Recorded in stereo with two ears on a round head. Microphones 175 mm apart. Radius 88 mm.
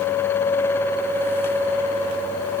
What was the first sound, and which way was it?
Only background noise.